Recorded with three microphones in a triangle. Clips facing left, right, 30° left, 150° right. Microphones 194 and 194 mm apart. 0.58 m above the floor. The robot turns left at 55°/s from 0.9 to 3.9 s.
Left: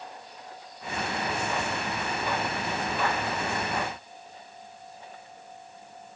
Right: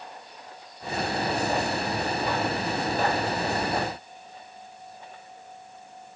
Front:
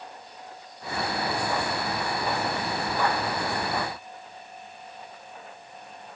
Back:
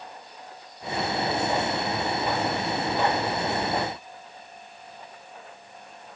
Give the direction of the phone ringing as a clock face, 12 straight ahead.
I don't hear a phone ringing.